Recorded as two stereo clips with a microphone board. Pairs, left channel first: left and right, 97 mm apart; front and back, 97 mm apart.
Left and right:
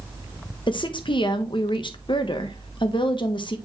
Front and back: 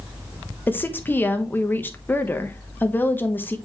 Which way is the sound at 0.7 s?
65° left.